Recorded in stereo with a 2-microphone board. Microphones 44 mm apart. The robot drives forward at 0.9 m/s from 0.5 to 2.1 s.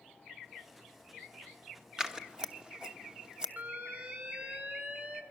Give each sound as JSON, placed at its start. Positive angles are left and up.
{"t": 2.0, "sound": "scissors", "side_deg": -15, "distance_m": 1.3}
{"t": 3.6, "sound": "an alarm", "side_deg": -45, "distance_m": 2.5}